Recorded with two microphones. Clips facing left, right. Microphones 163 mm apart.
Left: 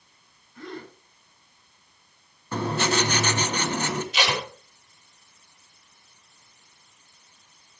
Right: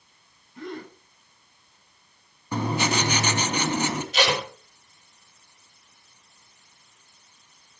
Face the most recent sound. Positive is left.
turn(degrees=-45)  # may be behind; listen again after turning